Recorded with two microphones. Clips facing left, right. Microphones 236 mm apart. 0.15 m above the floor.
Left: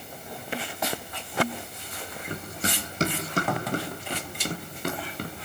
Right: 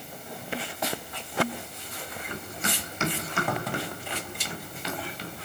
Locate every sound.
2.3 s running footsteps: 35° left (ahead or behind), 6.5 m; by 5.3 s 60° left (ahead or behind), 4.5 m